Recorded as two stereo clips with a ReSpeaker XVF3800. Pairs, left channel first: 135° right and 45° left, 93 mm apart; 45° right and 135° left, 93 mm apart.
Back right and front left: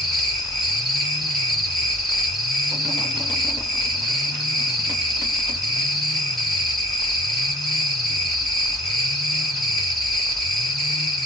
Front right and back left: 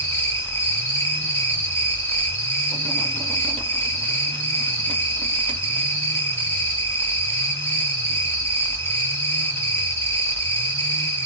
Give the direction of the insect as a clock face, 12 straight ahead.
2 o'clock.